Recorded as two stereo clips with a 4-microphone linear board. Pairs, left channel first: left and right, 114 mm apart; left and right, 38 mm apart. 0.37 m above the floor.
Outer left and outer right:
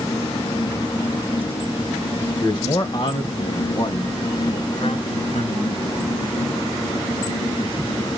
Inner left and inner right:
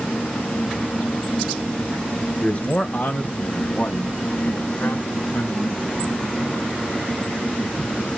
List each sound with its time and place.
2.4 s a man speaking: 40° left (ahead or behind), 1.0 m; by 6.2 s 75° left (ahead or behind), 4 m